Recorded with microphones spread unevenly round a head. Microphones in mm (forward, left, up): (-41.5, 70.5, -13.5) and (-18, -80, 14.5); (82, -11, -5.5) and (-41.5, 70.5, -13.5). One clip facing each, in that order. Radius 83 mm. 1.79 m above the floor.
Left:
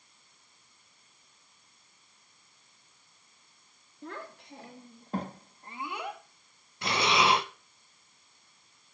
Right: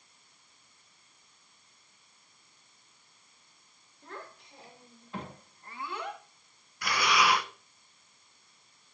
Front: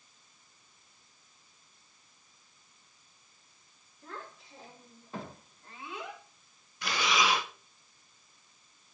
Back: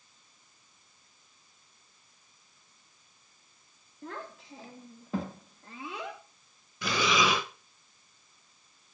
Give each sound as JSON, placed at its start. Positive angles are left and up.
{"t": 4.0, "sound": "a child speaking", "azimuth_deg": 120, "distance_m": 3.0}
{"t": 6.8, "sound": "breathing", "azimuth_deg": 165, "distance_m": 0.9}